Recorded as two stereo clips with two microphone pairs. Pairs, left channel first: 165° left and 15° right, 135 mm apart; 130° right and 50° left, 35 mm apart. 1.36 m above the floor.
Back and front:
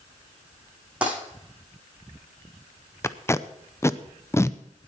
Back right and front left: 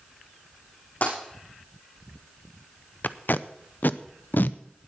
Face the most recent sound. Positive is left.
turn(degrees=-130)